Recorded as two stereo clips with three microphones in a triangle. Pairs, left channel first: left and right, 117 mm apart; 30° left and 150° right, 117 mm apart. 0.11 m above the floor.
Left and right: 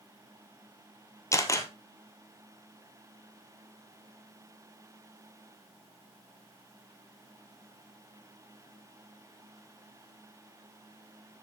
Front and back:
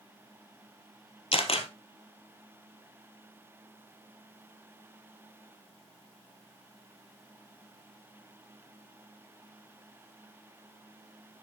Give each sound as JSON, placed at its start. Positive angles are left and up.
{"t": 1.3, "sound": "a camera shutter", "azimuth_deg": 35, "distance_m": 1.2}